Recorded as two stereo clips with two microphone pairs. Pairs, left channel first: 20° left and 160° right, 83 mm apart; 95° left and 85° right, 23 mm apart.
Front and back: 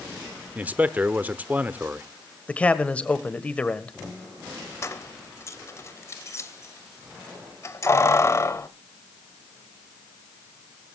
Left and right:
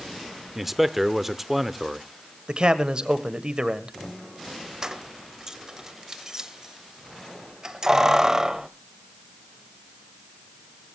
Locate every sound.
0.6 s a man speaking: 145° right, 0.7 m
2.5 s a man speaking: 50° right, 1.4 m
4.8 s keys jangling: 30° right, 1.0 m